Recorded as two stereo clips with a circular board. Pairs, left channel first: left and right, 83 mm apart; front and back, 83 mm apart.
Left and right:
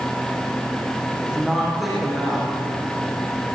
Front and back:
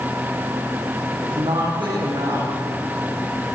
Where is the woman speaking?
175° right, 8.5 m.